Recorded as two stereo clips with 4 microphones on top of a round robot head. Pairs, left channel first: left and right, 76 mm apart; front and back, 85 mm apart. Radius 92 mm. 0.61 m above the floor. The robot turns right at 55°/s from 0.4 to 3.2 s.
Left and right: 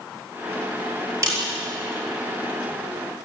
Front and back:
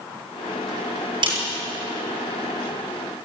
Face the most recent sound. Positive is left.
turn(degrees=-35)